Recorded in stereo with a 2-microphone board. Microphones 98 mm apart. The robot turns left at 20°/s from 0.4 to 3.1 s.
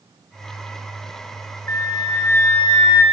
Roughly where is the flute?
Left.